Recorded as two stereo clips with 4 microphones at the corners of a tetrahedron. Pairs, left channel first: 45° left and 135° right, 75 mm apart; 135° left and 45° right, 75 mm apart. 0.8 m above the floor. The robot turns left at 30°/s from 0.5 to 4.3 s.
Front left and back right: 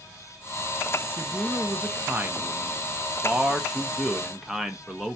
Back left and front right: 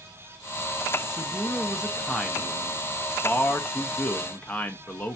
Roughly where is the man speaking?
Behind right.